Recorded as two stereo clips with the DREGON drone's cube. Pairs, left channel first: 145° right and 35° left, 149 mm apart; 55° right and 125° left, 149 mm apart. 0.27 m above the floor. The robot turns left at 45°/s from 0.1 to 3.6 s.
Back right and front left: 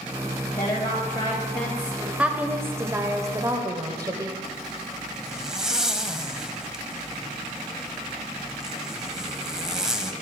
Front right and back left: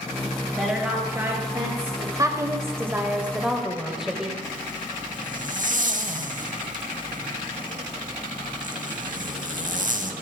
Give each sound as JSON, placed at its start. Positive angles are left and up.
{"t": 0.6, "sound": "a woman speaking", "azimuth_deg": -155, "distance_m": 1.6}
{"t": 2.2, "sound": "a woman speaking", "azimuth_deg": 105, "distance_m": 0.9}
{"t": 4.4, "sound": "a zipper", "azimuth_deg": 120, "distance_m": 0.7}